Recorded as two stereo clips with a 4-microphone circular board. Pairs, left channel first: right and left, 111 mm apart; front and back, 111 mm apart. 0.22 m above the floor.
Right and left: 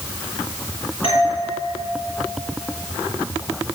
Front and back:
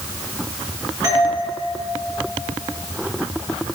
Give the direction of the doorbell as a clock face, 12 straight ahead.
4 o'clock.